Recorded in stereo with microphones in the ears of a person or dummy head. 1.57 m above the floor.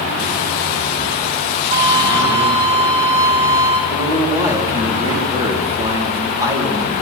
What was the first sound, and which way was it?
A violin, 35° right (ahead or behind).